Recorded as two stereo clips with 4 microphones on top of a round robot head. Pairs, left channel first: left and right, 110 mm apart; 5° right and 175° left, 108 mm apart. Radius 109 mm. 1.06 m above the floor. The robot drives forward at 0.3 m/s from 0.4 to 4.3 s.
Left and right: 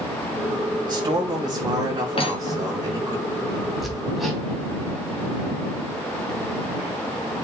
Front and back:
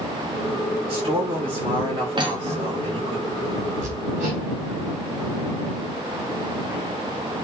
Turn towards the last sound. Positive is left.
turn(degrees=180)